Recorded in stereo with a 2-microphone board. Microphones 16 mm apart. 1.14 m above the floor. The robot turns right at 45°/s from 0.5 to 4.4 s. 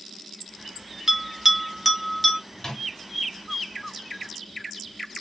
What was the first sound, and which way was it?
A bell, 20° right (ahead or behind).